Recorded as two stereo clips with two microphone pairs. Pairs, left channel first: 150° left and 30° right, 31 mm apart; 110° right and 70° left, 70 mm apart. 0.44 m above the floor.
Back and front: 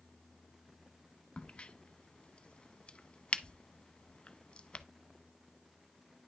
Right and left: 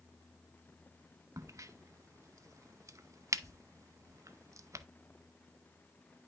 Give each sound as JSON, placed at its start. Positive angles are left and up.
{"t": 1.4, "sound": "a crack", "azimuth_deg": 105, "distance_m": 0.6}